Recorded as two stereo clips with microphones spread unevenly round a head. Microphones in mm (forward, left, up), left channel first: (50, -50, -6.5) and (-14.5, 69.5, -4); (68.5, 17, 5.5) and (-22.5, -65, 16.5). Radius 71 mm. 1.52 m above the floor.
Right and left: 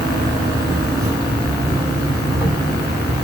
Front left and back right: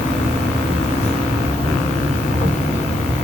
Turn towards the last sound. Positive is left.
turn(degrees=50)